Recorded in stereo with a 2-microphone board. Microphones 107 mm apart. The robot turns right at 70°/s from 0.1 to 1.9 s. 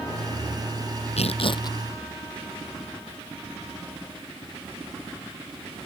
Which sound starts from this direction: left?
Tearing paper, at 1.2 s.